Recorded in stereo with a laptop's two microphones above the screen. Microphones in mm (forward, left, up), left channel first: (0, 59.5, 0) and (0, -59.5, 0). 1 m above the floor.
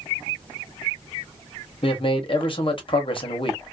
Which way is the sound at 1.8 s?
45° left (ahead or behind).